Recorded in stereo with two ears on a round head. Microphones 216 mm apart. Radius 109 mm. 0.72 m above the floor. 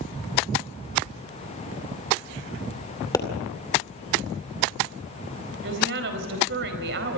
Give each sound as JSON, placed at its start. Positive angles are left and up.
{"t": 3.1, "sound": "a pop", "side_deg": 15, "distance_m": 2.5}
{"t": 5.6, "sound": "a woman speaking", "side_deg": -50, "distance_m": 4.5}